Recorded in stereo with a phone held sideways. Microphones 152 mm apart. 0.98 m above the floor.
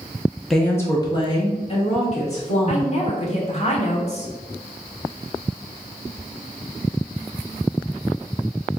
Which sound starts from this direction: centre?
A woman speaking, at 0.5 s.